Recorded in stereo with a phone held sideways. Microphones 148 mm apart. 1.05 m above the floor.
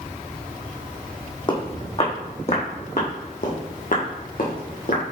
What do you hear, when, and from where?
1.5 s footsteps: 35° left (ahead or behind), 2 m; by 5.0 s 70° left (ahead or behind), 2.5 m